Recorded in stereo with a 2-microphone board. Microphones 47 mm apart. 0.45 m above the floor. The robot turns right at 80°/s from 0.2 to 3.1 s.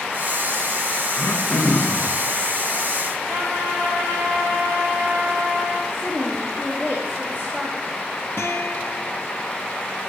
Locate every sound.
1.1 s throat clearing: 70° left, 1.7 m; by 2.1 s 145° left, 1.7 m
3.3 s a trumpet: 80° right, 6 m
5.9 s a woman speaking: 45° right (ahead or behind), 4.5 m
8.4 s a guitar: 50° left (ahead or behind), 1.5 m